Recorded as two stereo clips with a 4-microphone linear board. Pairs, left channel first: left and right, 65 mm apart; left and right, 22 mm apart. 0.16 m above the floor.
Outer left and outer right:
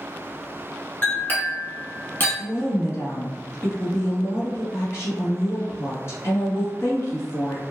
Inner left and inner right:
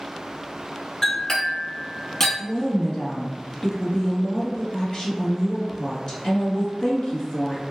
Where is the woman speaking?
50° left (ahead or behind), 1.9 m.